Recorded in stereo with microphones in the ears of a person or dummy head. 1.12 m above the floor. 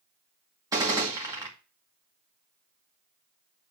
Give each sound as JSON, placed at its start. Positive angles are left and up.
{"t": 0.7, "sound": "a gunshot", "side_deg": -15, "distance_m": 2.0}